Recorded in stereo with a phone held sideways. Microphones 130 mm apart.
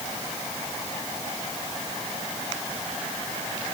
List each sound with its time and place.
Only background noise.